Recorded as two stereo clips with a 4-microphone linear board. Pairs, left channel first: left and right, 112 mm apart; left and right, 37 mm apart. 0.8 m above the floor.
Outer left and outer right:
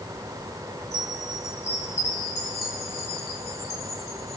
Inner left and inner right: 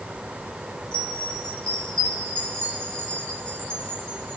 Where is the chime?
30° left (ahead or behind), 6 m.